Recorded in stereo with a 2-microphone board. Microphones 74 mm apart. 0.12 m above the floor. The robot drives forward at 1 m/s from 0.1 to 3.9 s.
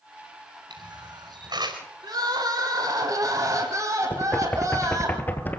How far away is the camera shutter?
About 5.5 m.